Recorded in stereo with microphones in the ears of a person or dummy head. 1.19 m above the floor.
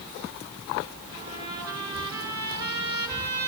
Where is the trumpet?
15° right (ahead or behind), 8.5 m.